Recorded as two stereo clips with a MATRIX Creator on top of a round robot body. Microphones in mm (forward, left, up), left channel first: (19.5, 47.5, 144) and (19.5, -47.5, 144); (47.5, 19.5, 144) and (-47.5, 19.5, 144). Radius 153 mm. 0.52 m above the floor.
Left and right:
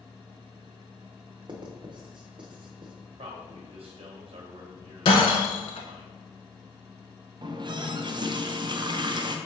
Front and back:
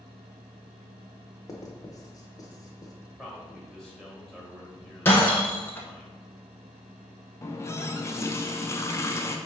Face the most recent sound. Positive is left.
turn(degrees=-60)